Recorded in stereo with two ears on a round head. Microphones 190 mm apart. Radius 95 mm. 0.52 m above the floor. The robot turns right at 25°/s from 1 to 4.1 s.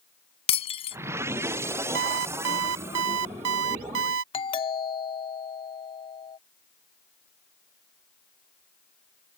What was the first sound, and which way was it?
Breaking glass, 30° left (ahead or behind).